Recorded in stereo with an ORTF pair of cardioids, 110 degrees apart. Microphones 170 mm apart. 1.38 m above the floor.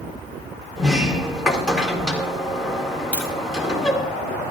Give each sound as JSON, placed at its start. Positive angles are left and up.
{"t": 0.8, "sound": "a sliding door", "azimuth_deg": 0, "distance_m": 2.0}
{"t": 3.1, "sound": "tapping", "azimuth_deg": -5, "distance_m": 4.0}